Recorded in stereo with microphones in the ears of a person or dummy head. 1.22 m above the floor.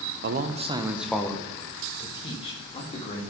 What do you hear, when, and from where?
0.2 s a man speaking: 55° right (ahead or behind), 0.7 m; by 3.2 s 35° left (ahead or behind), 2 m